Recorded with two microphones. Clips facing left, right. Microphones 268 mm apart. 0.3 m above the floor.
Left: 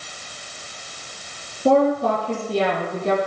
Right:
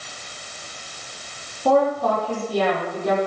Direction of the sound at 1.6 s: 30° left (ahead or behind).